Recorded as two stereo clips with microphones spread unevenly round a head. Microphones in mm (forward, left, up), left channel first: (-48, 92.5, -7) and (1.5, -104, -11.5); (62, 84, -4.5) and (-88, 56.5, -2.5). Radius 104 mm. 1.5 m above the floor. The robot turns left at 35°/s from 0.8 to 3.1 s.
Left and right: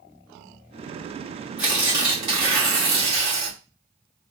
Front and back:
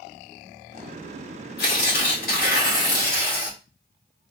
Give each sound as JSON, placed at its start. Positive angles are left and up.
{"t": 1.6, "sound": "tearing paper", "azimuth_deg": 10, "distance_m": 1.9}